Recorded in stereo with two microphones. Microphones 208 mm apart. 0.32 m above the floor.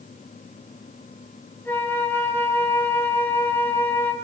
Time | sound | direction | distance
1.6 | a flute | 10° left (ahead or behind) | 2.5 m